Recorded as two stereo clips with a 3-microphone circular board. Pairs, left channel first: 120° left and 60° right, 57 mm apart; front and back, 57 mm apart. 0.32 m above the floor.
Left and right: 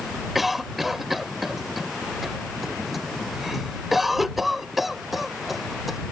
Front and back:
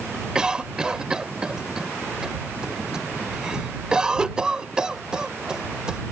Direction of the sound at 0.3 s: 140° right.